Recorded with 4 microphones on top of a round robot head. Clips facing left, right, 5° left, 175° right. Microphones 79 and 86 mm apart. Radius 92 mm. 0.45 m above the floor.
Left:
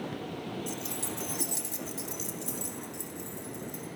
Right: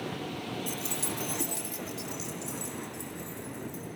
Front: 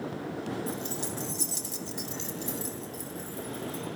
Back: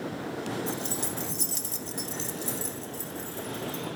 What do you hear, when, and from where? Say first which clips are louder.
0.7 s keys jangling: right 1 dB, back 1 dB; 120° right, 1.1 m; by 3.9 s 120° left, 4.5 m